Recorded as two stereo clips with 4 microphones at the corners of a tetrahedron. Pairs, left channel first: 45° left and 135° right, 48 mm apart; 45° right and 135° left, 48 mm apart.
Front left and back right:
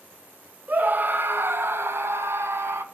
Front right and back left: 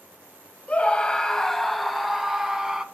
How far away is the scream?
About 1.3 m.